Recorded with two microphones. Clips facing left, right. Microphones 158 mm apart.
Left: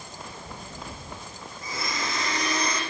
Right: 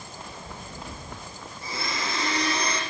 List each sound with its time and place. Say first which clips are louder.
1.6 s a blender: even; 30° right (ahead or behind), 9.5 m